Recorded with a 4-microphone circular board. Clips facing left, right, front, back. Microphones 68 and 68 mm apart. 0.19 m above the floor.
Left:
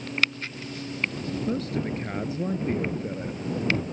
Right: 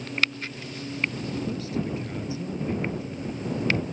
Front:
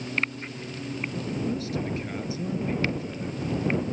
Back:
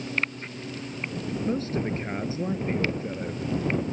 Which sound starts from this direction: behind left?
A man speaking, at 1.5 s.